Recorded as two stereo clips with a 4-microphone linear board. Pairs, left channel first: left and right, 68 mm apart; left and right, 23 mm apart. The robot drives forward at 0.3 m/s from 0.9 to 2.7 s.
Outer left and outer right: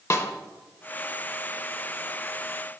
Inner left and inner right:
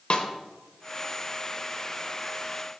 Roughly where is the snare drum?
Left.